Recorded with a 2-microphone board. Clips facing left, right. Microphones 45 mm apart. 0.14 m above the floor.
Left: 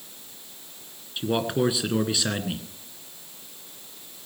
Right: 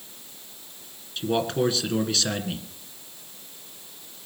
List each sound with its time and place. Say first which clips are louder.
1.2 s a man speaking: even; 10° left (ahead or behind), 1.8 m